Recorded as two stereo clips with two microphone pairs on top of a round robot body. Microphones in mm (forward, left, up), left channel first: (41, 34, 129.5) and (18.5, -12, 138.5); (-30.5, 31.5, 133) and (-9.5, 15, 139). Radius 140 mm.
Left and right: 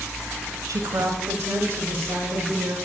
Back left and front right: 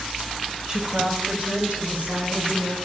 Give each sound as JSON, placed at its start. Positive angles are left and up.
{"t": 0.7, "sound": "a woman speaking", "azimuth_deg": -110, "distance_m": 0.9}